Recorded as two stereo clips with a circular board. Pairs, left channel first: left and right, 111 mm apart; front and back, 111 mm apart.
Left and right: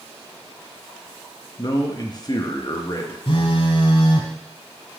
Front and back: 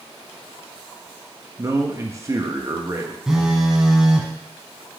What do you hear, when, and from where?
1.6 s a man speaking: 125° left, 1.0 m
3.3 s a phone buzzing: 95° left, 1.0 m